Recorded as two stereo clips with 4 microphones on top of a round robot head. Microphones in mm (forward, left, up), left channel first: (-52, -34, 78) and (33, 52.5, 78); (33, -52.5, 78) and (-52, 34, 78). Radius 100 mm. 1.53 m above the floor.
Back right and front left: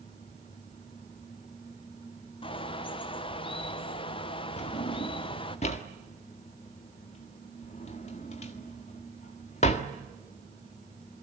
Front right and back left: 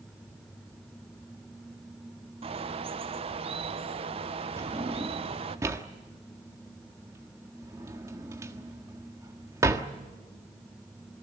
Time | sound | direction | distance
2.4 | a bird | straight behind | 1.1 m
4.6 | a drawer | 160° right | 1.3 m